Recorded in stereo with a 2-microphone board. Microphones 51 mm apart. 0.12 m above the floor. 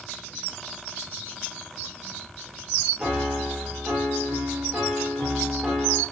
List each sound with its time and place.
3.0 s a piano: 10° right (ahead or behind), 0.6 m